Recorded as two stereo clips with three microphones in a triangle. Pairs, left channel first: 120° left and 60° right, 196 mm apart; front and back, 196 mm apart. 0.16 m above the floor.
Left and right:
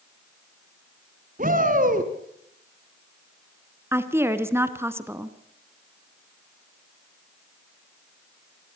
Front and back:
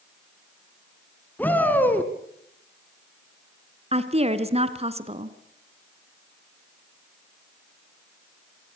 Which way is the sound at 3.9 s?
135° right.